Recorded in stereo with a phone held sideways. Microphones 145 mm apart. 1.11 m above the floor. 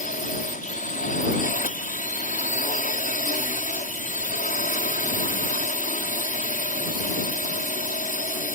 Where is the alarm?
I don't hear an alarm.